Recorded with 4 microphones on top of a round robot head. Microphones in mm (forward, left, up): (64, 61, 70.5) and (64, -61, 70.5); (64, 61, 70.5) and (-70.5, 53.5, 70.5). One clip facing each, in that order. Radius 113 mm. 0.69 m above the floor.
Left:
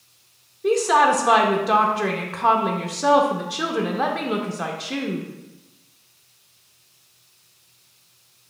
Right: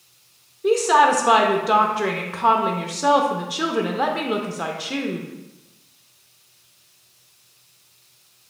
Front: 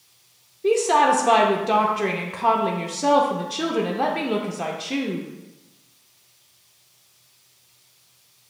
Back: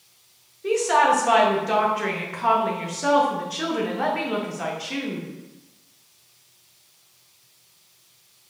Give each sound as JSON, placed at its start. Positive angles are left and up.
{"t": 0.6, "sound": "a woman speaking", "azimuth_deg": -5, "distance_m": 0.5}